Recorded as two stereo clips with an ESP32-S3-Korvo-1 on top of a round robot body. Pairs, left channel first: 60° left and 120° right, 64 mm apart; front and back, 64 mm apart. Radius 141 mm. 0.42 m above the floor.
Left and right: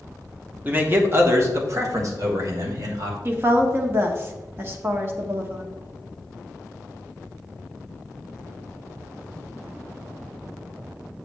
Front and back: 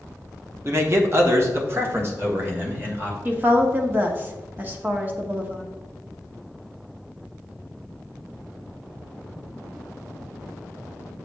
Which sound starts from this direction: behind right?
A woman speaking, at 3.2 s.